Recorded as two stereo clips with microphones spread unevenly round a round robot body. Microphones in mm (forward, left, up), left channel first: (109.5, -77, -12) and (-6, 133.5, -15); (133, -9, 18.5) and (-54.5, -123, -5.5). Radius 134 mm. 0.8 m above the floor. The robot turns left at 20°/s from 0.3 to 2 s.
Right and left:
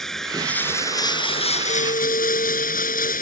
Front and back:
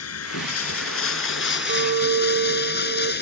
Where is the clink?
120° right; by 3.1 s 130° right.